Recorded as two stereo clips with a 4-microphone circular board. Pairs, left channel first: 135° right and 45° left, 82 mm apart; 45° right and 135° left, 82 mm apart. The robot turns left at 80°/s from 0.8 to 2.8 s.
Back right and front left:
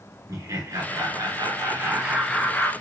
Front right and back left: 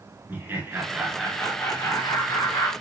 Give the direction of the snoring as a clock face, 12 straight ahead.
No snoring in this recording.